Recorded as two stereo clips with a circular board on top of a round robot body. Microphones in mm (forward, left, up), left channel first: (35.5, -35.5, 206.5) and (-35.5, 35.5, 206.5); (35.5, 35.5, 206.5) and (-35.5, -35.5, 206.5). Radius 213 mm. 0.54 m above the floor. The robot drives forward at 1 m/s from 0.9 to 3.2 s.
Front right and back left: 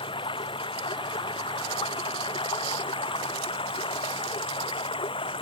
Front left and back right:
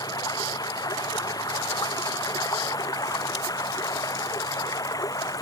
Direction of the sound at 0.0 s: 10° right.